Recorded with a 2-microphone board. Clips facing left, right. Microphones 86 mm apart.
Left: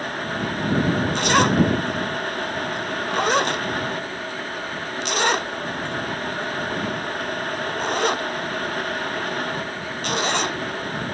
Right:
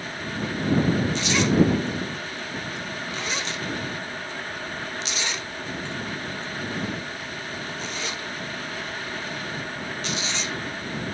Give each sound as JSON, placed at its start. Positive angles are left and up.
{"t": 1.1, "sound": "a zipper", "side_deg": 55}